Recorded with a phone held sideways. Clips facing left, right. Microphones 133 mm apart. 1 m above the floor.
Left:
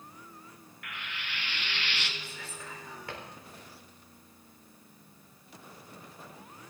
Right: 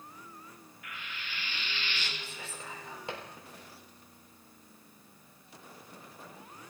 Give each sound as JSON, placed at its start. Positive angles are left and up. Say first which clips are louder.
{"t": 0.8, "sound": "frying", "louder": "left 3 dB", "side_deg": 60, "distance_m": 1.1}
{"t": 2.2, "sound": "whispering", "louder": "even", "side_deg": -20, "distance_m": 4.0}